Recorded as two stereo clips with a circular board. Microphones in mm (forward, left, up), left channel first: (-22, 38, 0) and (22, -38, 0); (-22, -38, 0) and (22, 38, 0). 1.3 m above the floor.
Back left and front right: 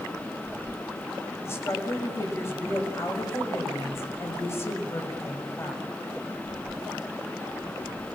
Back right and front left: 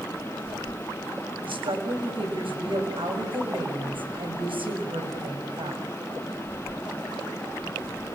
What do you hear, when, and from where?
1.4 s a woman speaking: 60° left, 6 m